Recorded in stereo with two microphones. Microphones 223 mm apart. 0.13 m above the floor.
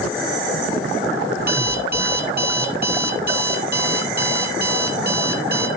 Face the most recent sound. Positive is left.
turn(degrees=-45)  # may be behind; listen again after turning